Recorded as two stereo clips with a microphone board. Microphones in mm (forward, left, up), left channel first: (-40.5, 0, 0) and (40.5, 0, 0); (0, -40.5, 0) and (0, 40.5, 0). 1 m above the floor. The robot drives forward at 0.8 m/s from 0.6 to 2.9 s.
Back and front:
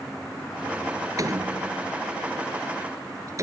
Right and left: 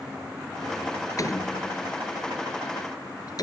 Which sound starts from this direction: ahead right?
A door slam, at 1.2 s.